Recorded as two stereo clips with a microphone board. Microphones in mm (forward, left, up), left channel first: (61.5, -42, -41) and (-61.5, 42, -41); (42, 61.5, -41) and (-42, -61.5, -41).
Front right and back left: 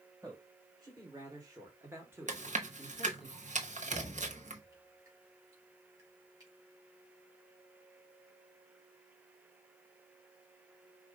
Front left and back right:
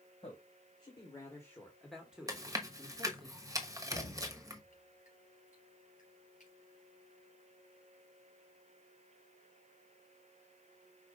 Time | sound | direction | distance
0.2 | a man speaking | 95° left | 1.8 m
2.3 | chewing | 170° left | 1.0 m
3.9 | dripping | 85° left | 3.5 m